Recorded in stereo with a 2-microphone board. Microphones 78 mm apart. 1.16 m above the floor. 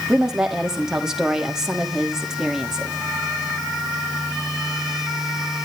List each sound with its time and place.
0.1 s a woman speaking: 5° right (ahead or behind), 2.5 m